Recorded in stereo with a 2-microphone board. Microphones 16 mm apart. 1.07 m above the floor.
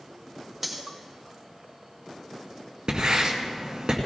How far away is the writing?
About 2 m.